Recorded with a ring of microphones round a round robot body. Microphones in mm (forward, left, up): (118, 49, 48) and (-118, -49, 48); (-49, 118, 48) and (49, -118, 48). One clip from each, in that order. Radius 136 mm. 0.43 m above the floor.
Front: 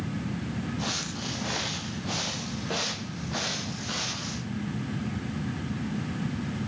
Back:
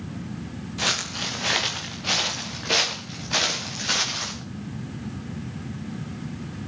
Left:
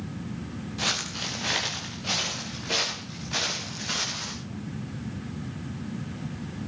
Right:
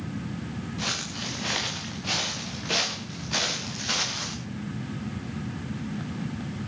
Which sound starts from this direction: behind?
Footsteps, at 0.8 s.